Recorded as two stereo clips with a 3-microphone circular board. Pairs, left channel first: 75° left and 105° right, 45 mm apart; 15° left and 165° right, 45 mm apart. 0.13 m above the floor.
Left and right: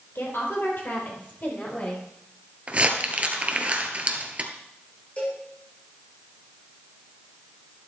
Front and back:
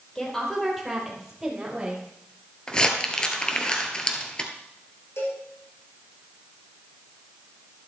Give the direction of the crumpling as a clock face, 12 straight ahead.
2 o'clock.